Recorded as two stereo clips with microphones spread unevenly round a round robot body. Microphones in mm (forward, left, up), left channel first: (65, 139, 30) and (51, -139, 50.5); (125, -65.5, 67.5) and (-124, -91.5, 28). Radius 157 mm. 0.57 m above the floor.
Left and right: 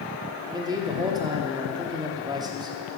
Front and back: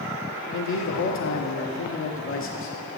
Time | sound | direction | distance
0.5 | a man speaking | 15° right | 1.1 m